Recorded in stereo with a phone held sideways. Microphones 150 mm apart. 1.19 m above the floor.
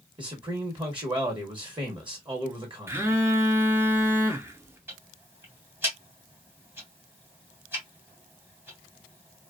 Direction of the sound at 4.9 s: 15° right (ahead or behind).